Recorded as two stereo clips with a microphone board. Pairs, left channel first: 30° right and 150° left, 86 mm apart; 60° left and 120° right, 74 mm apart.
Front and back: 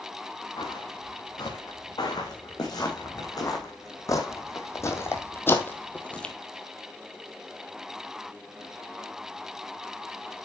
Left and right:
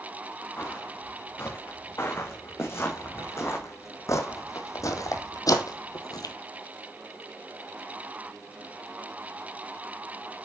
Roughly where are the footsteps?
Ahead.